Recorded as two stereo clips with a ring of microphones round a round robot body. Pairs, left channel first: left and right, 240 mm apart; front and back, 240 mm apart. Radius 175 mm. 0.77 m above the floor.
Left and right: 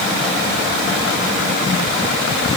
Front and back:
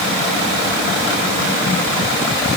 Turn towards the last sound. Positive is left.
No sound to turn to.